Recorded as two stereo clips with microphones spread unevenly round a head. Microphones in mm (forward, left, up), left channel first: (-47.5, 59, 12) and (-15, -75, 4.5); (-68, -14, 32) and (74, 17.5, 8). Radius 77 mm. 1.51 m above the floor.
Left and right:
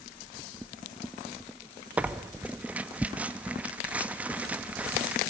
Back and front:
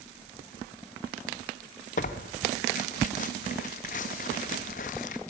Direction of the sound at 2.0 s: 155° right.